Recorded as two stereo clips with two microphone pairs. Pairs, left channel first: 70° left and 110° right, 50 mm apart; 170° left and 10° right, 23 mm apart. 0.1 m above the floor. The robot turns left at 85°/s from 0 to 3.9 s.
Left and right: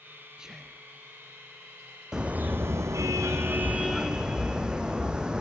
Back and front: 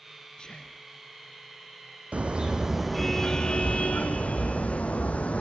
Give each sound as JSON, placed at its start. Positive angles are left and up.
{"t": 0.4, "sound": "whispering", "azimuth_deg": -175, "distance_m": 1.7}
{"t": 2.1, "sound": "a car horn", "azimuth_deg": -30, "distance_m": 2.0}